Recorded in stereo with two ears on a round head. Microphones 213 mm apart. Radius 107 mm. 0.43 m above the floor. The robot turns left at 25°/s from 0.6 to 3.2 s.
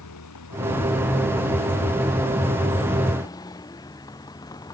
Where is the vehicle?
80° left; by 4.7 s 15° left.